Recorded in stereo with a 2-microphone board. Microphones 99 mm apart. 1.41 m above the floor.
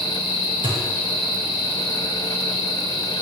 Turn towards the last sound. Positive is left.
turn(degrees=-50)  # may be behind; listen again after turning